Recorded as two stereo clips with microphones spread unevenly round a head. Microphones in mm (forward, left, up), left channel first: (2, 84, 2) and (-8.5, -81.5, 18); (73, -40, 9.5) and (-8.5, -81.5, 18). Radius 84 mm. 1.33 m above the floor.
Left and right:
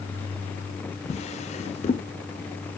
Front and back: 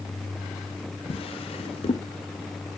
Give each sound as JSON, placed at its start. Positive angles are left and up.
{"t": 1.1, "sound": "a drawer", "azimuth_deg": 35, "distance_m": 0.8}